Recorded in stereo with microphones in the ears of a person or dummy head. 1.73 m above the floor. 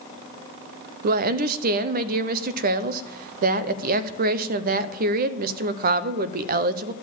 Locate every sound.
1.0 s a woman speaking: 50° right (ahead or behind), 0.8 m